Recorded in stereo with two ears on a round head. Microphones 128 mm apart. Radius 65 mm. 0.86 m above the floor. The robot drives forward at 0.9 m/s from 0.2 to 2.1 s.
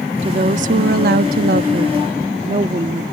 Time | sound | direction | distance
0.2 | a woman speaking | 45° right (ahead or behind) | ?